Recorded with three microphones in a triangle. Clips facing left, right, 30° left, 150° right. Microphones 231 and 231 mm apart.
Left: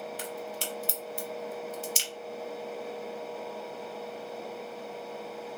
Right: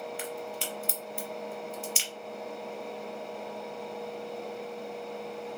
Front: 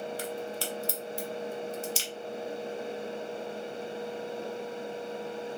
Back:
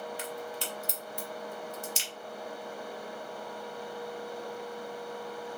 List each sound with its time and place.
0.2 s a crack: 140° left, 1.0 m